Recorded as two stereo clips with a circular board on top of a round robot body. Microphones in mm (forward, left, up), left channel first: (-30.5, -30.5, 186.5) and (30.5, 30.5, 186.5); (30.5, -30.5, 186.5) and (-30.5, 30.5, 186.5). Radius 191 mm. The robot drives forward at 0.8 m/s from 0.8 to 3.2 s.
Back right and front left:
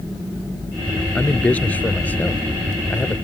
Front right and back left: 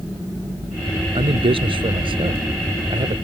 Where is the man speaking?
150° left; by 3.1 s 155° left.